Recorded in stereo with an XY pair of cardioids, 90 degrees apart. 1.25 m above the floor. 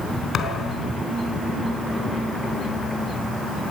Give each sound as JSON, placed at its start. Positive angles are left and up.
{"t": 0.3, "sound": "a thud", "azimuth_deg": 70, "distance_m": 3.5}